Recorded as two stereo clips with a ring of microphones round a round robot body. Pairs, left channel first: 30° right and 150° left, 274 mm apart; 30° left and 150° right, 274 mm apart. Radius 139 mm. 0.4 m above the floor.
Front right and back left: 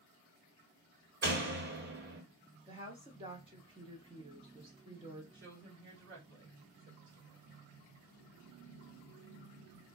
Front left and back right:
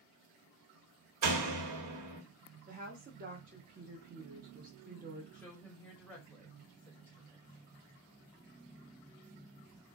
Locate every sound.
1.2 s a door slam: 160° right, 1.1 m
2.7 s a woman speaking: 155° right, 0.9 m
5.3 s a woman speaking: 115° left, 2.0 m